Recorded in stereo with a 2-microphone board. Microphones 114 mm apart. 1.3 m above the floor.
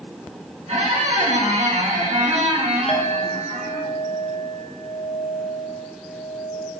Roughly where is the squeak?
Right.